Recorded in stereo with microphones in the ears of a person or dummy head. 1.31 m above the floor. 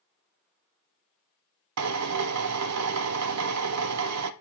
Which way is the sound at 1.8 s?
85° right.